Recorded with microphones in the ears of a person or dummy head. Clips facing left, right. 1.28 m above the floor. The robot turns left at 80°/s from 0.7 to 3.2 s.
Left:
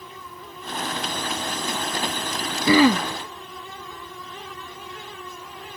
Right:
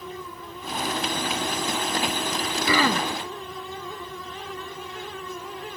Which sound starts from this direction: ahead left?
Throat clearing, at 2.7 s.